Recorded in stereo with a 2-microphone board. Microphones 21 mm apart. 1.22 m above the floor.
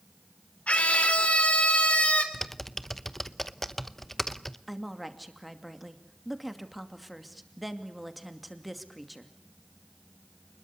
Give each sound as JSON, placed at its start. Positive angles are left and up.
{"t": 0.7, "sound": "a scream", "side_deg": 85, "distance_m": 4.0}
{"t": 2.3, "sound": "typing on a keyboard", "side_deg": 10, "distance_m": 0.8}
{"t": 4.7, "sound": "a woman speaking", "side_deg": -5, "distance_m": 2.5}